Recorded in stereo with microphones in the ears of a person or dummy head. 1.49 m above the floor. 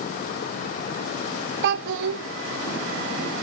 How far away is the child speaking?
About 0.5 m.